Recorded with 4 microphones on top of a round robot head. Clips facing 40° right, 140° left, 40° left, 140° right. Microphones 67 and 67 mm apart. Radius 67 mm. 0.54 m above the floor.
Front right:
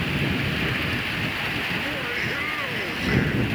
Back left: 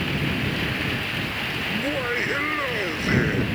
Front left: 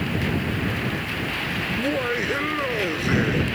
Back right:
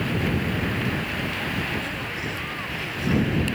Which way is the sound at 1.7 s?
75° left.